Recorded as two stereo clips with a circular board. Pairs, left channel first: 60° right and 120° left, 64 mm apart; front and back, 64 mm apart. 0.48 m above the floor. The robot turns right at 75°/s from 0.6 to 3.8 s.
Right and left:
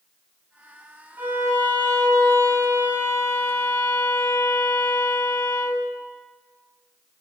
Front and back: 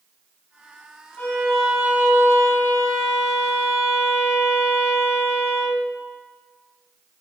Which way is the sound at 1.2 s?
55° left.